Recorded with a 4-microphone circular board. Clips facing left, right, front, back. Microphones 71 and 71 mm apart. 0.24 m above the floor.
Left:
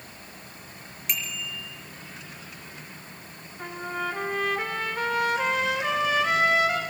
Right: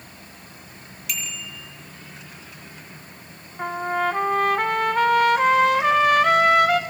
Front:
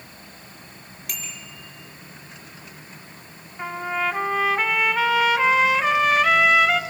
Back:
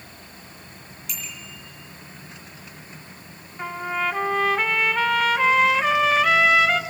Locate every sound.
1.1 s a bicycle bell: 25° left, 5 m
3.6 s a trumpet: 85° right, 1.2 m